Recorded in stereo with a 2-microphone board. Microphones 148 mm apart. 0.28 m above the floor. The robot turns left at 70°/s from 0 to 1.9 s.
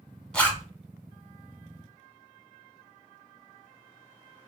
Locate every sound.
0.3 s a zipper: 5° left (ahead or behind), 0.9 m; by 0.7 s 25° left (ahead or behind), 0.9 m